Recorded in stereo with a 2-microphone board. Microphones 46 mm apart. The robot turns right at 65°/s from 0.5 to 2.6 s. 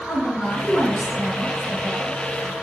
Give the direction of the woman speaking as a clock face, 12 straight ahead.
9 o'clock.